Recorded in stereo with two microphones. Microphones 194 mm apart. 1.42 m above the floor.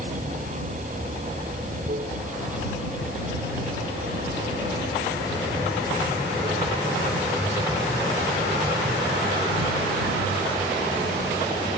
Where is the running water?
40° right (ahead or behind).